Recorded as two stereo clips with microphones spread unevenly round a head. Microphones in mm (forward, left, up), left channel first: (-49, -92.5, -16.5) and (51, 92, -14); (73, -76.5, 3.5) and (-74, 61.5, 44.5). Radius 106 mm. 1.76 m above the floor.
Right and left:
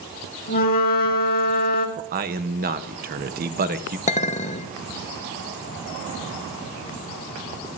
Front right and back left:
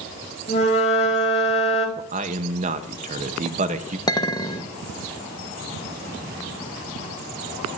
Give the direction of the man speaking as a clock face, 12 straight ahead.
9 o'clock.